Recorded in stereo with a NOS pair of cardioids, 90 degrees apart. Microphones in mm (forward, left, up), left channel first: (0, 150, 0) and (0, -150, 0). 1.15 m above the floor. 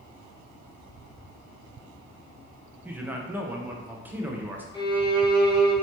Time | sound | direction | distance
2.9 | a man speaking | 5° right | 0.7 m
4.7 | a violin | 15° left | 1.0 m